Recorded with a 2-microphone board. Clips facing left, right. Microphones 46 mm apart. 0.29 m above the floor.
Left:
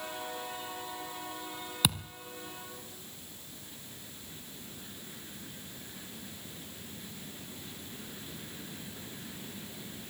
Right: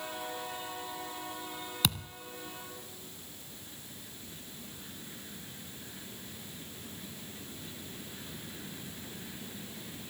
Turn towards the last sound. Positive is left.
turn(degrees=5)  # may be behind; listen again after turning